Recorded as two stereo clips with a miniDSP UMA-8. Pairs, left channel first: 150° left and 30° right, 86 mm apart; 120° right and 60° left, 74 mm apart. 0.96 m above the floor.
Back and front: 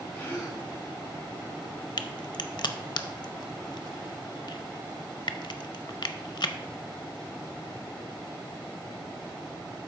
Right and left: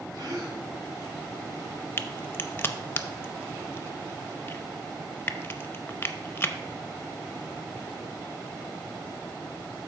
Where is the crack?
175° left, 0.6 m.